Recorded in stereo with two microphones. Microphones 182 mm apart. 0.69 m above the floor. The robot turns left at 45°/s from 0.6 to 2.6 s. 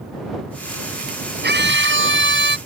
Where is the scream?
60° right; by 2.6 s 115° right.